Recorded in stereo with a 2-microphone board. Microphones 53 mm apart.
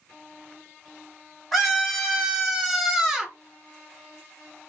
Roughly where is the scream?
Centre.